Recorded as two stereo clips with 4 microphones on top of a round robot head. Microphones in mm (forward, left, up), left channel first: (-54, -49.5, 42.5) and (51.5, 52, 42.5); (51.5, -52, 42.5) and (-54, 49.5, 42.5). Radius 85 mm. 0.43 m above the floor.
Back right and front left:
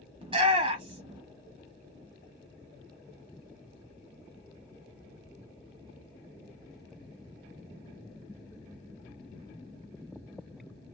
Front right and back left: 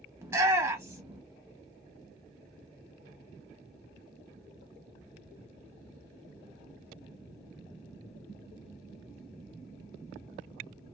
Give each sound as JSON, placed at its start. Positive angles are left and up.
{"t": 0.2, "sound": "a shout", "azimuth_deg": 70, "distance_m": 1.2}